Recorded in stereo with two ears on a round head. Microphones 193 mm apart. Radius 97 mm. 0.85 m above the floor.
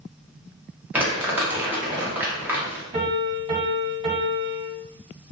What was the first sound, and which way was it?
Crumpling, 10° right (ahead or behind).